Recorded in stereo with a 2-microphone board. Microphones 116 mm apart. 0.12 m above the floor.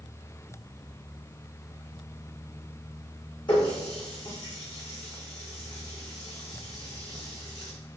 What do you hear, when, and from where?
3.5 s a running tap: 40° left (ahead or behind), 6 m